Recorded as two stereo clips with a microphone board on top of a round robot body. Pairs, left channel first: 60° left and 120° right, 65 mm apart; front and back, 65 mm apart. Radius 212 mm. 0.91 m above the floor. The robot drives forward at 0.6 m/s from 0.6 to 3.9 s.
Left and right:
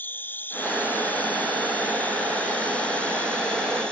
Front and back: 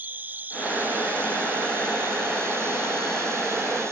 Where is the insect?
120° left; by 3.9 s 135° left.